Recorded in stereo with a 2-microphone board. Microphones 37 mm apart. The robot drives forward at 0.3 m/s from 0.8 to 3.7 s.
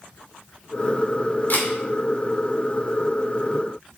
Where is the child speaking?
I don't hear a child speaking.